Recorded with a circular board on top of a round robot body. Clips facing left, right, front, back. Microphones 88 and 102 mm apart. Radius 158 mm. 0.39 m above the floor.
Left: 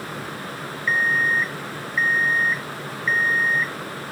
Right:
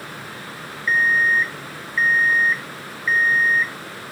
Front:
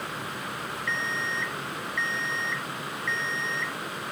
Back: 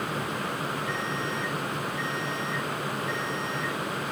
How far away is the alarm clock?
About 1.3 m.